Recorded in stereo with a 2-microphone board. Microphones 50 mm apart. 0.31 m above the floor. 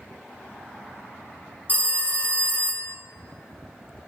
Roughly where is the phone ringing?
Left.